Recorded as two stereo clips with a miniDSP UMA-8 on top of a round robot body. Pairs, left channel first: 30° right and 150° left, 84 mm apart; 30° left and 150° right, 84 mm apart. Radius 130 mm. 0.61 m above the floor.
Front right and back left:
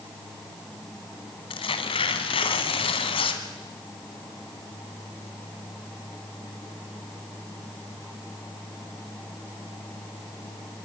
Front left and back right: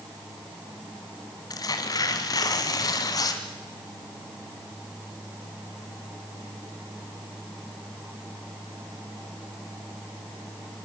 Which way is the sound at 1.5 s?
15° right.